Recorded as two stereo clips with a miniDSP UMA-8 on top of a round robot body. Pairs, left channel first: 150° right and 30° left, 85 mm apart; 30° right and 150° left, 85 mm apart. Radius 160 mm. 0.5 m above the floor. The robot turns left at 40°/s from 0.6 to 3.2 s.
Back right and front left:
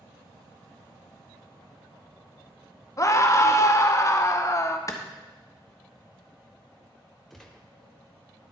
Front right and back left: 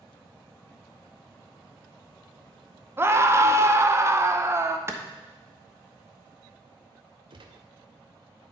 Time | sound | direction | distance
3.0 | a scream | 165° right | 1.0 m
4.9 | a clap | 170° right | 1.2 m
7.3 | a gunshot | 120° left | 0.6 m